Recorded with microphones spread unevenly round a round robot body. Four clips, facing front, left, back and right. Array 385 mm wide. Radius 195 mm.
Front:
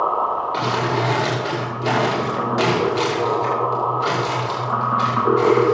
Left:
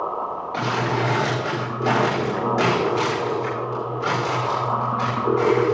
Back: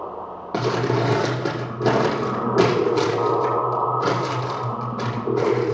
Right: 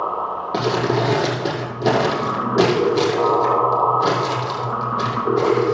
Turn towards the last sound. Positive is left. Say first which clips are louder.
# right 4 dB, front 1 dB
turn(degrees=-135)